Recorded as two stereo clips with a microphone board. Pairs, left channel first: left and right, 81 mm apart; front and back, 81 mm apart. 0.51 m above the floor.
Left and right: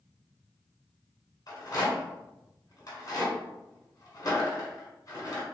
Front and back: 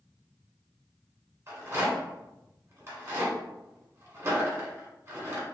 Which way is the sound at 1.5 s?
125° left.